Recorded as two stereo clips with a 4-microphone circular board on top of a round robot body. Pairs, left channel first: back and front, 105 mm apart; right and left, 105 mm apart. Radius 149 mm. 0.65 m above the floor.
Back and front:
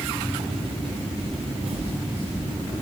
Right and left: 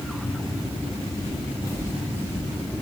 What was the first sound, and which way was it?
Footsteps, 35° right.